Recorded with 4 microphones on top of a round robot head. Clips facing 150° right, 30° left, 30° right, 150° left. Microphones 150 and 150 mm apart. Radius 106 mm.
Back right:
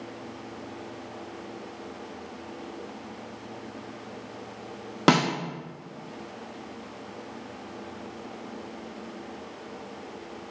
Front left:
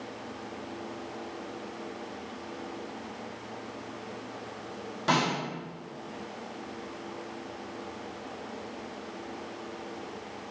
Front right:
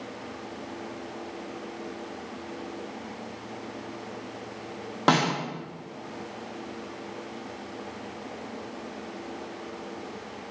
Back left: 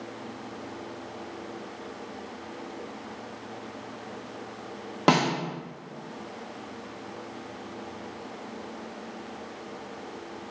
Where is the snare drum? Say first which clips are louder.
Back right 6 dB, back left 1 dB; 135° right, 0.6 m.